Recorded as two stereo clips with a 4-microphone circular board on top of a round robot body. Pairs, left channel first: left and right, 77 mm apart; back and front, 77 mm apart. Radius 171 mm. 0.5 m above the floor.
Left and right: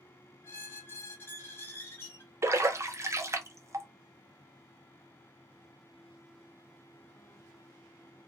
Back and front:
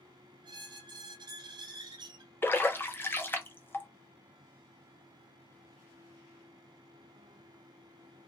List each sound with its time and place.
0.4 s a squeak: 25° left, 0.5 m
2.4 s a splash: 125° right, 0.8 m